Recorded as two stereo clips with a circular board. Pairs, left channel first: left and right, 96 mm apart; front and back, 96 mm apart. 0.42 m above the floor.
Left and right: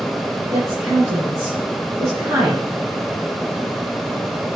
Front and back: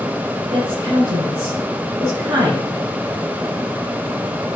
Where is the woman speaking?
145° right, 6 m.